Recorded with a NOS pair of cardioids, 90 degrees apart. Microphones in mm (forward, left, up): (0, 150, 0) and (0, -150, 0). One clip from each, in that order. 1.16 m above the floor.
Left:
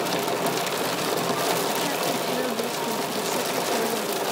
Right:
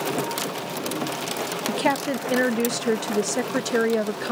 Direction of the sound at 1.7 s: 55° right.